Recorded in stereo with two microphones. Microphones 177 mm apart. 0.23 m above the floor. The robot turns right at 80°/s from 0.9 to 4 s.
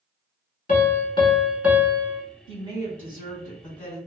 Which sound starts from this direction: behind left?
A piano, at 0.7 s.